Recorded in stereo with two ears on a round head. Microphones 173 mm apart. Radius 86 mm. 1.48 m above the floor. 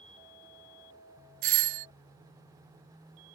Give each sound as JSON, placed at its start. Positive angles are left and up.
{"t": 1.4, "sound": "a doorbell", "side_deg": -45}